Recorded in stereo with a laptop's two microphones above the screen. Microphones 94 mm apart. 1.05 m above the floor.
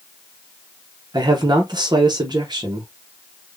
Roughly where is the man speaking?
Right.